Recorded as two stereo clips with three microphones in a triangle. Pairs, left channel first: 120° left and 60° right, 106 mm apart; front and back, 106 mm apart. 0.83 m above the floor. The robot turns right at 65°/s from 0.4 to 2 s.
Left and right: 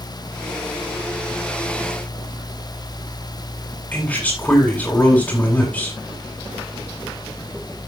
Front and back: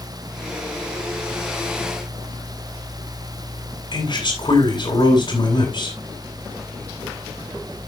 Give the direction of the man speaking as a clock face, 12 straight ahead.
11 o'clock.